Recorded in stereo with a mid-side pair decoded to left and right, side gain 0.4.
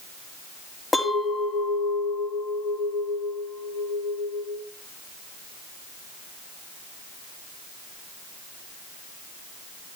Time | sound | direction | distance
0.9 | a clink | 25° left | 2.5 m